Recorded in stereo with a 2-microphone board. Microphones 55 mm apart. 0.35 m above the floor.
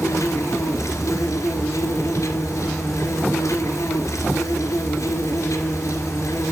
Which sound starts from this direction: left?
An insect, at 0.0 s.